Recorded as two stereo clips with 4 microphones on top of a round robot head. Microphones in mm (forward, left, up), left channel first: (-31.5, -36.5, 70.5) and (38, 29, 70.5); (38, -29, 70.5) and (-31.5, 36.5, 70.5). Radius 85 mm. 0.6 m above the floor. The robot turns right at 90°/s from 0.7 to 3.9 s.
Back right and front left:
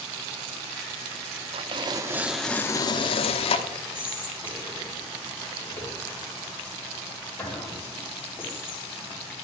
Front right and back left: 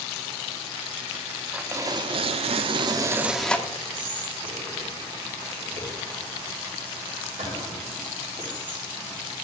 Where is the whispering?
155° left, 4 m.